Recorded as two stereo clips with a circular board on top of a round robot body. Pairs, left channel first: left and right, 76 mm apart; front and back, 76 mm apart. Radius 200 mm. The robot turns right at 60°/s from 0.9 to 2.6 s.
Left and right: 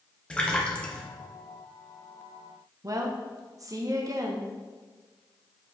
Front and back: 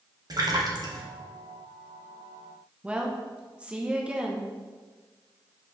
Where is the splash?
165° left, 1.5 m; by 1.1 s 170° left, 1.5 m.